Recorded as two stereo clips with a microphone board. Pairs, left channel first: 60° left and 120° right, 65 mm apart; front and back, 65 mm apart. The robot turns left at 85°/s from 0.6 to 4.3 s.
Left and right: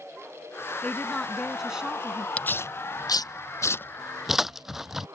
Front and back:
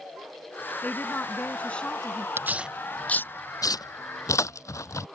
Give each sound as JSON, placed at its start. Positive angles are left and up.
{"t": 0.8, "sound": "a woman speaking", "azimuth_deg": 30}
{"t": 2.4, "sound": "tearing paper", "azimuth_deg": 130}